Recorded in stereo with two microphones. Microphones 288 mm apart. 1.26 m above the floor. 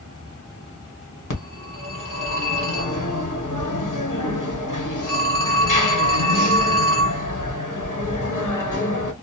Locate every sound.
1.3 s a phone ringing: 80° left, 1.0 m